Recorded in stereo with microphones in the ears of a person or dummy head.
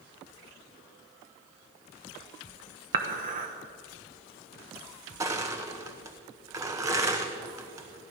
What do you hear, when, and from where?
2.9 s dishes clattering: 45° right (ahead or behind), 1.0 m
5.2 s crushing: 15° right (ahead or behind), 1.0 m